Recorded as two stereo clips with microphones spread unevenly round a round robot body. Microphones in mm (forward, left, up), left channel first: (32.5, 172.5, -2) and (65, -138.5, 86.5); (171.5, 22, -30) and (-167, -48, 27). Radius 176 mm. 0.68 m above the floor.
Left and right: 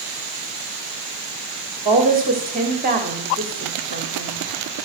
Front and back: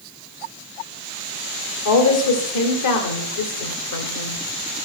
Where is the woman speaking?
15° right, 1.9 m.